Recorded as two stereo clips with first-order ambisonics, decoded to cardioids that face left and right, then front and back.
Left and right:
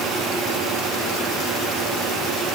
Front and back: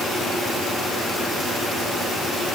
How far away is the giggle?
No giggle in this recording.